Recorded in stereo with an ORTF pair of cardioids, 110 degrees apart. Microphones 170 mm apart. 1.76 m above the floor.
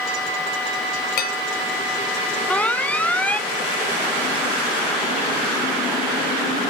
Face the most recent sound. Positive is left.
turn(degrees=10)